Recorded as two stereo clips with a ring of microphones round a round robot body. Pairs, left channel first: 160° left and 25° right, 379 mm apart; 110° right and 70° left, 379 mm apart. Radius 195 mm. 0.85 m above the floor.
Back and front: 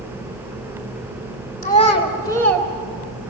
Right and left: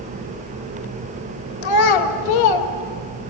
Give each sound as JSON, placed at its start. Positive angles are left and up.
{"t": 1.6, "sound": "a child speaking", "azimuth_deg": -130, "distance_m": 2.0}